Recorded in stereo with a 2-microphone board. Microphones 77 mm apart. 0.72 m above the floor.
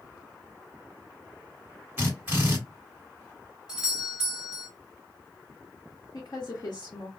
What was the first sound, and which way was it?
A drill, 25° right (ahead or behind).